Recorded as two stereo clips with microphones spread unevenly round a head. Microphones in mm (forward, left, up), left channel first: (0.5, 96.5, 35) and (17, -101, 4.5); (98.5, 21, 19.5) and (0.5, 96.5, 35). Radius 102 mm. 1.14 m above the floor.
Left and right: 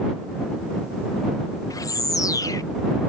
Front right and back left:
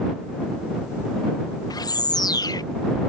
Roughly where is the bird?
Ahead.